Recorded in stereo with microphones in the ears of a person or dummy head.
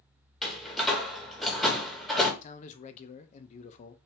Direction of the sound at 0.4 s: 10° left (ahead or behind).